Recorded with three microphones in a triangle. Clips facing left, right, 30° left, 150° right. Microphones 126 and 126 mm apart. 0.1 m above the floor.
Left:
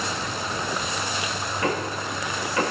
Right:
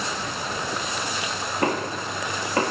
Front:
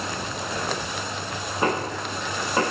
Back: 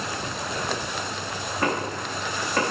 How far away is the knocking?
About 6.5 m.